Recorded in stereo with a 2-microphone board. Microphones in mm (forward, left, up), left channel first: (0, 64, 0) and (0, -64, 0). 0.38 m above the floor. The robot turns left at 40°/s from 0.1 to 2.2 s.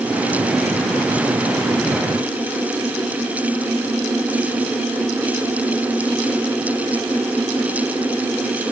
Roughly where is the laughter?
I don't hear laughter.